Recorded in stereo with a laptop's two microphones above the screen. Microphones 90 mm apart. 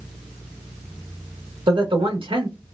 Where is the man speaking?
75° right (ahead or behind), 1.6 m.